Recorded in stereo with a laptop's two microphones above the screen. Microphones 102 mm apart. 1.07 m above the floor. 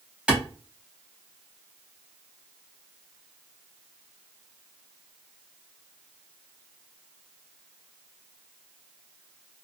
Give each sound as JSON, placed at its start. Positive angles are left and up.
{"t": 0.3, "sound": "a clap", "side_deg": -10, "distance_m": 1.0}